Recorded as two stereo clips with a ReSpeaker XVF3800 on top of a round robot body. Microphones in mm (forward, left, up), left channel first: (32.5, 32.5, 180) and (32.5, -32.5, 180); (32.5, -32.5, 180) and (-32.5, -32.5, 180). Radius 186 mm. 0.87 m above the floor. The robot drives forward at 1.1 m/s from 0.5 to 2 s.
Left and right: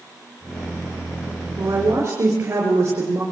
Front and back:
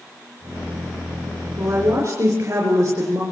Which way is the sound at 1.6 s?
140° right.